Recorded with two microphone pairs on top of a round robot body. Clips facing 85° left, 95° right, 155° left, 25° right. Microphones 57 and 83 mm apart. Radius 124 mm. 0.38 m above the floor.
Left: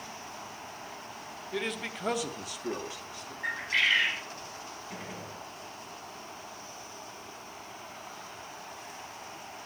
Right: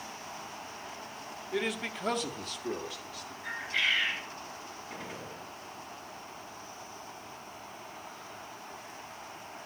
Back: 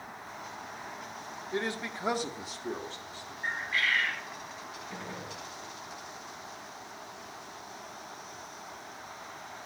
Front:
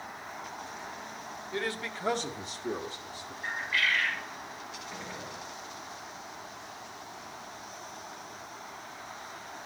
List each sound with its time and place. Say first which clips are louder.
1.5 s a man speaking: right 1 dB, back 1 dB; 175° left, 1.2 m; by 3.3 s 45° left, 1.2 m
3.4 s a bird: left 3 dB, even; 95° left, 1.7 m
4.9 s a gunshot: right 1 dB, back 1 dB; 160° left, 8 m